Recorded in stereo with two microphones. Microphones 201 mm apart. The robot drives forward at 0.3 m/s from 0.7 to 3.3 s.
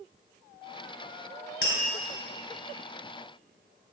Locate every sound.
1.6 s tapping: 60° left (ahead or behind), 3 m